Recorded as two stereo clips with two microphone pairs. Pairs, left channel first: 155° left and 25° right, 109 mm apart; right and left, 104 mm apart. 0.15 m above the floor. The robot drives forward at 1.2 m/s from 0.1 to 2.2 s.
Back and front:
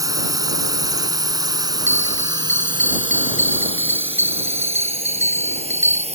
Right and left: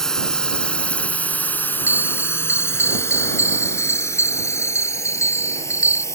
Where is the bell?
25° right.